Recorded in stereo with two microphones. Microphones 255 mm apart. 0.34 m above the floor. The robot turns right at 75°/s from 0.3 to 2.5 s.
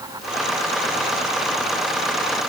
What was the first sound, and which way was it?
Only background noise.